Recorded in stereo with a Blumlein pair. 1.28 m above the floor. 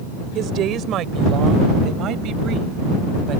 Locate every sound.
0.3 s a woman speaking: 30° right